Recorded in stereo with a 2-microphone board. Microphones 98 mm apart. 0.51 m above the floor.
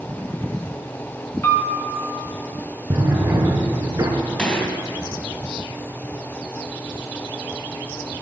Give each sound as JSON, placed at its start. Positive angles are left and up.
{"t": 1.4, "sound": "a piano", "side_deg": 30, "distance_m": 1.7}
{"t": 2.9, "sound": "a drawer", "side_deg": -30, "distance_m": 2.0}
{"t": 4.4, "sound": "a gunshot", "side_deg": 15, "distance_m": 2.5}